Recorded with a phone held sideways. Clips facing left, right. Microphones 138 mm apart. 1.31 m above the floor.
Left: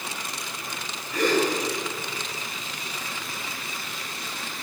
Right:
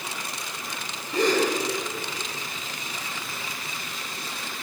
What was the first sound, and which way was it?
A gasp, 30° right (ahead or behind).